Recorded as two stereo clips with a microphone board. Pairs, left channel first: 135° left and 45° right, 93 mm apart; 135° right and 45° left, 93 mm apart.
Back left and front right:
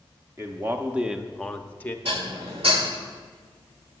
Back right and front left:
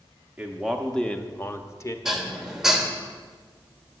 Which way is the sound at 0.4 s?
25° right.